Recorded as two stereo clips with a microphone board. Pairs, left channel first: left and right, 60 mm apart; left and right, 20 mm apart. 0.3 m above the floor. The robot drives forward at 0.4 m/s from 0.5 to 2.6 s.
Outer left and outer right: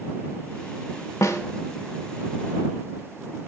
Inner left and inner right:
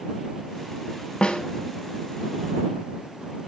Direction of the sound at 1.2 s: 60° left (ahead or behind).